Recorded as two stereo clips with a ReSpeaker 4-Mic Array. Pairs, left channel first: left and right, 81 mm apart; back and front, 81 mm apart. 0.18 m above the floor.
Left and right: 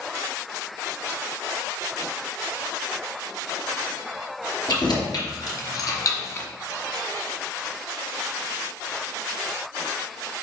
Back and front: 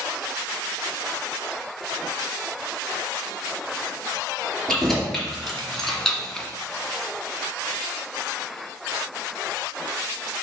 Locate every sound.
4.7 s keys jangling: 95° left, 3 m; by 6.5 s 105° left, 1.1 m